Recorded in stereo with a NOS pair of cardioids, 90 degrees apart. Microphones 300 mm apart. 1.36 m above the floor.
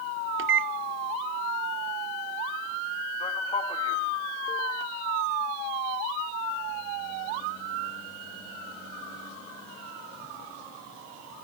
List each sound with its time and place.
0.4 s a microwave: 45° right, 0.5 m
3.2 s a man speaking: 20° left, 2.5 m